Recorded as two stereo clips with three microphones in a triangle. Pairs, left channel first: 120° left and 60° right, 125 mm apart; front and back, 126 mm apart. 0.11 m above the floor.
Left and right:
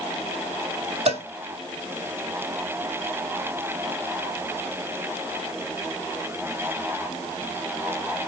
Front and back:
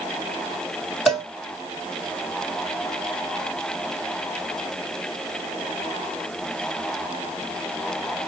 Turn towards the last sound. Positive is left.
turn(degrees=-90)